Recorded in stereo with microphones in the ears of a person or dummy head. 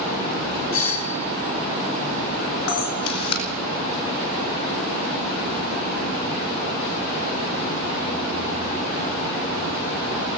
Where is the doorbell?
75° left (ahead or behind), 2.5 m.